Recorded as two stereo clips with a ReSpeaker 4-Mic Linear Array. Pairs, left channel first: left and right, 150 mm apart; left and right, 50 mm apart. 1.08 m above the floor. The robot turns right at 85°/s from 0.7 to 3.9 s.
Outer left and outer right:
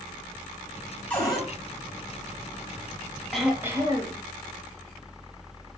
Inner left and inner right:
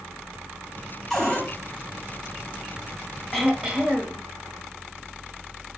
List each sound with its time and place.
1.1 s a cupboard door: 10° left, 1.8 m; by 1.5 s 40° left, 1.8 m
3.3 s throat clearing: 175° left, 0.9 m; by 4.2 s 135° right, 0.9 m